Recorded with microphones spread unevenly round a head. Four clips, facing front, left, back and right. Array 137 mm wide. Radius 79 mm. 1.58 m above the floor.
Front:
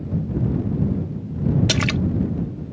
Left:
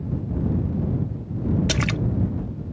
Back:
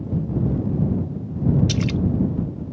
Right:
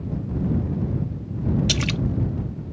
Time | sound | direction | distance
1.7 | a splash | 45° left | ?